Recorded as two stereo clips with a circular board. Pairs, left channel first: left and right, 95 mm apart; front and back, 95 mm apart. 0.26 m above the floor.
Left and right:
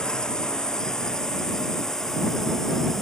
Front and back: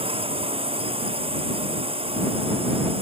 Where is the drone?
175° left.